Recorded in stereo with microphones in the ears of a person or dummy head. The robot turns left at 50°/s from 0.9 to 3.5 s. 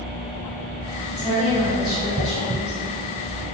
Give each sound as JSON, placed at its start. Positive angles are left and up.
{"t": 1.1, "sound": "a woman speaking", "azimuth_deg": 165, "distance_m": 1.3}